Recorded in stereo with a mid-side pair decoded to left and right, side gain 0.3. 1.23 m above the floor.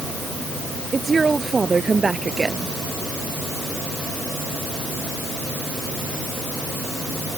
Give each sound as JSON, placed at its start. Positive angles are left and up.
{"t": 0.9, "sound": "a woman speaking", "azimuth_deg": -40}